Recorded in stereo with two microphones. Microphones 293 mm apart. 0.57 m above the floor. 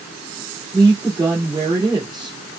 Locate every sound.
0.7 s a woman speaking: 15° right (ahead or behind), 1.7 m